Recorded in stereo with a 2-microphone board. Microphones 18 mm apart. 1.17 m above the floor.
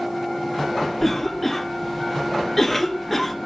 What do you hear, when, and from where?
1.0 s a cough: 10° left (ahead or behind), 0.8 m